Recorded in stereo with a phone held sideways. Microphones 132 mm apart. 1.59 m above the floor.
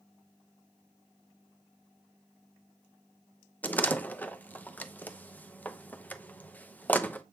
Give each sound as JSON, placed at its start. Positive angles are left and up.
{"t": 3.6, "sound": "a door slam", "side_deg": 15, "distance_m": 0.8}